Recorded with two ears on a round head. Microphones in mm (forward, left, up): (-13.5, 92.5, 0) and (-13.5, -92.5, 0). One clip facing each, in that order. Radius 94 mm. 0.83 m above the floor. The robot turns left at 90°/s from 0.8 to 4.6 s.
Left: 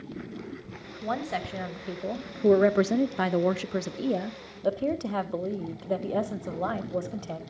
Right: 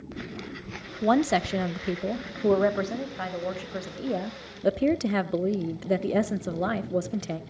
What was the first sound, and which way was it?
A woman speaking, 65° right.